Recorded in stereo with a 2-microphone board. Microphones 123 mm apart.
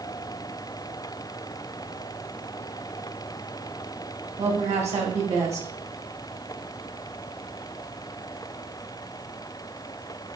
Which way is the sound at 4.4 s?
65° right (ahead or behind).